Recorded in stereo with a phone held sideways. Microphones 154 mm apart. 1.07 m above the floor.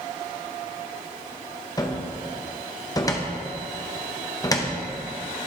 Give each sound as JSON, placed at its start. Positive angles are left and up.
{"t": 1.8, "sound": "a cupboard door", "side_deg": 25, "distance_m": 0.7}